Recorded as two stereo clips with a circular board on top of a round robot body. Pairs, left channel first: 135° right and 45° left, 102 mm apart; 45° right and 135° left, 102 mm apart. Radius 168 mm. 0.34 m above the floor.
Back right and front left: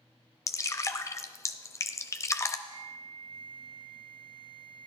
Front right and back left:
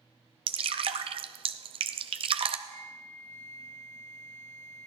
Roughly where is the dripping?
Behind.